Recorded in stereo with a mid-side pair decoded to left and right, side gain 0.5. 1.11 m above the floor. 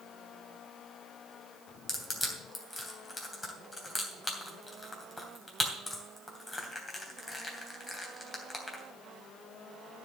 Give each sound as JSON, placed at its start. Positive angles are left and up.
{"t": 1.9, "sound": "crushing", "azimuth_deg": 20, "distance_m": 3.0}